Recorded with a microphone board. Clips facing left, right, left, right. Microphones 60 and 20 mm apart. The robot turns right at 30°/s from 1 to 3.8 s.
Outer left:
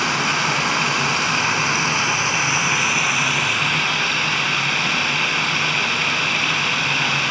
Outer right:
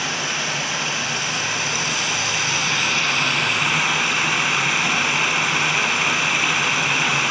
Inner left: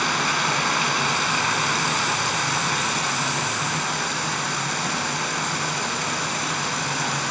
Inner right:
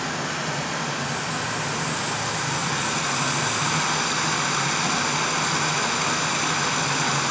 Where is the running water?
100° left, 0.8 m; by 7.3 s 175° right, 0.8 m.